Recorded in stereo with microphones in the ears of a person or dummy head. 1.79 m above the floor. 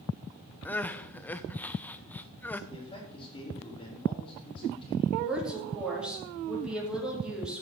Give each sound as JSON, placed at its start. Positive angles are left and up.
{"t": 0.7, "sound": "crying", "side_deg": 10, "distance_m": 0.6}
{"t": 2.7, "sound": "a man speaking", "side_deg": 25, "distance_m": 4.0}
{"t": 5.2, "sound": "a woman speaking", "side_deg": -5, "distance_m": 4.5}